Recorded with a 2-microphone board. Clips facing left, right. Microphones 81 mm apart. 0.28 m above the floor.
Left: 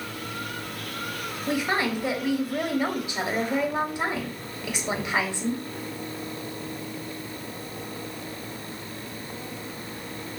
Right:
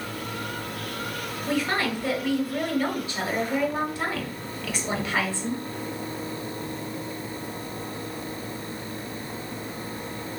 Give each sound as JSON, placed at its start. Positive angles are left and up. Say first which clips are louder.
{"t": 1.5, "sound": "a woman speaking", "louder": "even", "side_deg": 20, "distance_m": 1.1}